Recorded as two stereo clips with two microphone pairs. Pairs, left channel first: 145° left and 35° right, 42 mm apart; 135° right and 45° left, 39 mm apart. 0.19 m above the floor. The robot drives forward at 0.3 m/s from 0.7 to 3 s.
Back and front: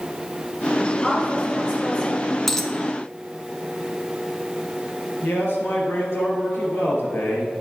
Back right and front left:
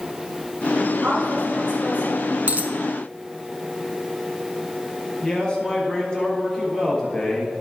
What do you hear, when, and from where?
1.0 s a woman speaking: 85° left, 3 m; by 2.2 s 95° left, 3 m
2.5 s a dropped coin: 70° left, 0.7 m; by 2.7 s 75° left, 0.7 m
5.2 s a man speaking: 155° left, 2.5 m